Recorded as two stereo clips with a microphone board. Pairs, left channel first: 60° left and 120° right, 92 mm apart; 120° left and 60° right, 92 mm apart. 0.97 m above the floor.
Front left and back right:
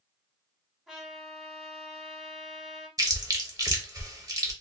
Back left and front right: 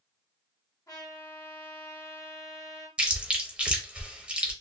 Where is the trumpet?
160° left, 1.2 m.